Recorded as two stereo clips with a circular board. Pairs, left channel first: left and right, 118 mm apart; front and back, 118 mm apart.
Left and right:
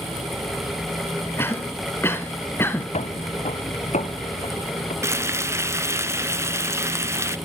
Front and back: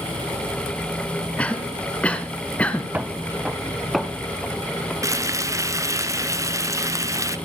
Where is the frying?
140° right, 0.7 m.